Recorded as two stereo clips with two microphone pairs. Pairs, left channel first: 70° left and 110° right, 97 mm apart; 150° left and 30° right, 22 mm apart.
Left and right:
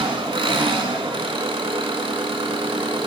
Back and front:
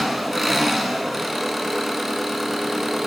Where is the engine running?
110° right, 0.7 m.